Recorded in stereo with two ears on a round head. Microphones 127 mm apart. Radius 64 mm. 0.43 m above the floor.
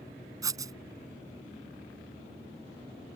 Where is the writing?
25° right (ahead or behind).